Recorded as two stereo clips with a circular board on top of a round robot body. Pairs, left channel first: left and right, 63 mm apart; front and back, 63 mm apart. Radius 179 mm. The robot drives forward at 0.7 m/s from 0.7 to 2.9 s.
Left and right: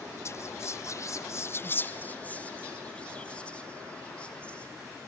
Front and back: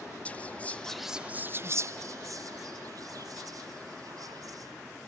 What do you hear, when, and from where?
0.2 s whispering: 65° left, 0.7 m; by 4.7 s 165° left, 1.5 m